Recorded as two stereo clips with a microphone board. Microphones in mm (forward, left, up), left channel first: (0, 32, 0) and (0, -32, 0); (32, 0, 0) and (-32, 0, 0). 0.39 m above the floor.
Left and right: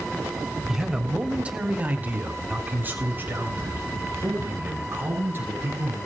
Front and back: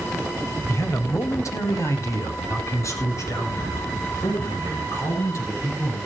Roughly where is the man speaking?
Ahead.